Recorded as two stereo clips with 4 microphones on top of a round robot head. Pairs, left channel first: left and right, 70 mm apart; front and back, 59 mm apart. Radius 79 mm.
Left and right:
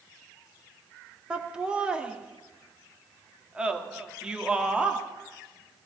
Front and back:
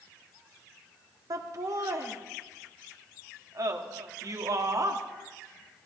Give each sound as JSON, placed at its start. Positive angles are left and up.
{"t": 1.3, "sound": "laughter", "azimuth_deg": -165, "distance_m": 2.0}